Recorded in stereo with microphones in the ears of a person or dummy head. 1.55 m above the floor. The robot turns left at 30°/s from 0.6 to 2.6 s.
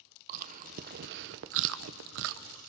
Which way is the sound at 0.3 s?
45° right (ahead or behind).